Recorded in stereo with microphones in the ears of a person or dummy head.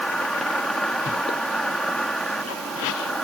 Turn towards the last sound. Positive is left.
turn(degrees=5)  # may be behind; listen again after turning